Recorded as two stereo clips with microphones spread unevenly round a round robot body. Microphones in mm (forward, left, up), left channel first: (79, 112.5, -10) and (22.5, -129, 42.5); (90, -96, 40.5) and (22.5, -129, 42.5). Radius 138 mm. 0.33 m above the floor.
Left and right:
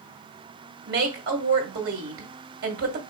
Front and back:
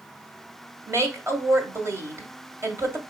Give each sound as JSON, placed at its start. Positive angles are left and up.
{"t": 0.9, "sound": "a woman speaking", "azimuth_deg": -135, "distance_m": 1.2}